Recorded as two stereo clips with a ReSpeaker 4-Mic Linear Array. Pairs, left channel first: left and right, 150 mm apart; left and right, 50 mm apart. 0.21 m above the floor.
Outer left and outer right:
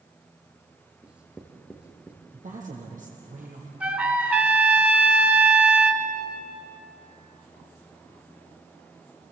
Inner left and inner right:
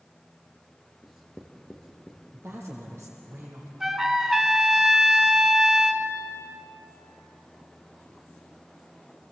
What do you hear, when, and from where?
1.0 s writing: 10° right (ahead or behind), 3.5 m
2.3 s a woman speaking: 60° right (ahead or behind), 7.5 m
3.8 s a trumpet: 10° right (ahead or behind), 2 m